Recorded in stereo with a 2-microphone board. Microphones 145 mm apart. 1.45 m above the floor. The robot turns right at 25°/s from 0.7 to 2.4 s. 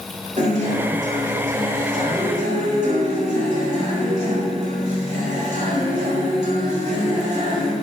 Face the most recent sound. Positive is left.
turn(degrees=-70)